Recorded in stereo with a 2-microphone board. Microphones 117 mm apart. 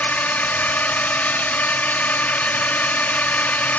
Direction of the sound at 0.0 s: 15° left (ahead or behind).